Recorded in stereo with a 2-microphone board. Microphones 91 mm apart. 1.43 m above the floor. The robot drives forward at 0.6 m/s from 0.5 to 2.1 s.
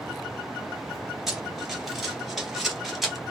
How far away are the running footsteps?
About 1.4 m.